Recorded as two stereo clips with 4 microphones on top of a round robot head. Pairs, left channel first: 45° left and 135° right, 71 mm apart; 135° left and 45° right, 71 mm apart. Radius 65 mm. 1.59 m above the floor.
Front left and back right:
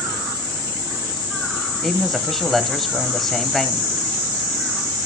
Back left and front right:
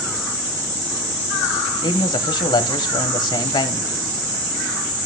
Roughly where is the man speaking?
Behind left.